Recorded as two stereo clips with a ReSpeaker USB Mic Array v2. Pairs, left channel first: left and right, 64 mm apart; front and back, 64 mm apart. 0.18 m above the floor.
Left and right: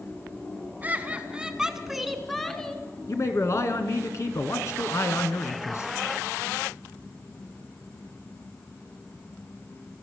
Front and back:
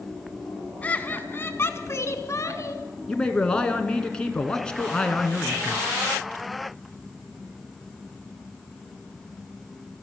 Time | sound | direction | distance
0.8 | laughter | 50° right | 1.8 m
3.1 | a man speaking | 75° left | 2 m